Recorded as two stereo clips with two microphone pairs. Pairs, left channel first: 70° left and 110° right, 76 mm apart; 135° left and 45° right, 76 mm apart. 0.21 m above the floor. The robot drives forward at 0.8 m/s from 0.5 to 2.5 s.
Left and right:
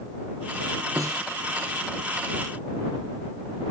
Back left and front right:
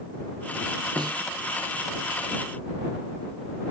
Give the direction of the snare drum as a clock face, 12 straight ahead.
2 o'clock.